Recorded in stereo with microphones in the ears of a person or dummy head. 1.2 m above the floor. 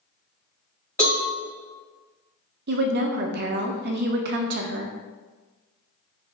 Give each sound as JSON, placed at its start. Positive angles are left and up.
{"t": 1.0, "sound": "a cowbell", "side_deg": 10, "distance_m": 1.8}
{"t": 2.7, "sound": "a woman speaking", "side_deg": -65, "distance_m": 0.6}